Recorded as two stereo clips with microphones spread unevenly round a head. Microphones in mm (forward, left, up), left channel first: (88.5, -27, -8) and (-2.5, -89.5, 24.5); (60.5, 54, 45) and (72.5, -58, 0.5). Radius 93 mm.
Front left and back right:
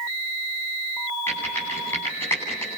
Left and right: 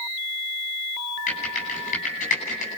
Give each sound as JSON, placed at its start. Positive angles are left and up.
{"t": 1.3, "sound": "typing on a keyboard", "azimuth_deg": 115, "distance_m": 9.5}